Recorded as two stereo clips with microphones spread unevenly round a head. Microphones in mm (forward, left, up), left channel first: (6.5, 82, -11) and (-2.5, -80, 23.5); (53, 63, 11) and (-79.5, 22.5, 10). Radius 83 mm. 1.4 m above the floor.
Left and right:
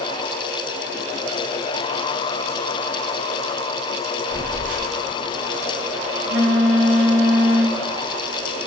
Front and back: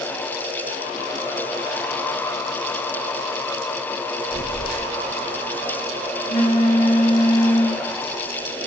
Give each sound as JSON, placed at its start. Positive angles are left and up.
{"t": 4.3, "sound": "a phone buzzing", "azimuth_deg": -110, "distance_m": 1.1}